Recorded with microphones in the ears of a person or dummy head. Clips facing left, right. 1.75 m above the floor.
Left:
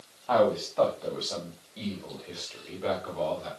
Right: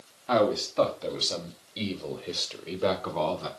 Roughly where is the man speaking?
Centre.